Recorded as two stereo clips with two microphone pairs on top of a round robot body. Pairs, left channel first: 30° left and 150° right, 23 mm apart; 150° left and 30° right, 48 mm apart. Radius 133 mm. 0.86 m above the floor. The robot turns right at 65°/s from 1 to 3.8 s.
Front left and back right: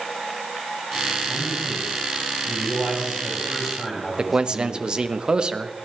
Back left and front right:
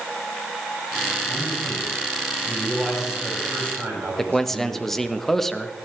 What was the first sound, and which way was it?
A man speaking, 140° left.